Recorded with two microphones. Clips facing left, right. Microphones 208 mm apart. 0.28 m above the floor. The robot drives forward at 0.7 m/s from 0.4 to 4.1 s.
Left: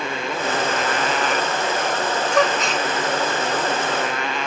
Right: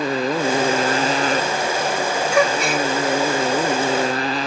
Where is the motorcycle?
35° right (ahead or behind).